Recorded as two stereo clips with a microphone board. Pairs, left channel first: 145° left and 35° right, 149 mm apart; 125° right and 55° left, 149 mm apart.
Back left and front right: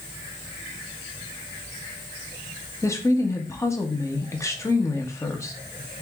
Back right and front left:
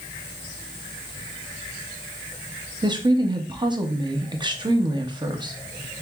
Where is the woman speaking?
90° left, 0.6 m.